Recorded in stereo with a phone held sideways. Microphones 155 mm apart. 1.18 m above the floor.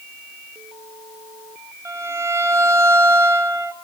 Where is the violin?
20° right (ahead or behind), 1.1 m.